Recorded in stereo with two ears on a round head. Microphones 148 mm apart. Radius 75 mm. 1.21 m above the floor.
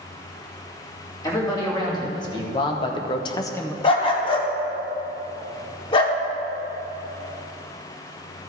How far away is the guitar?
No guitar in this recording.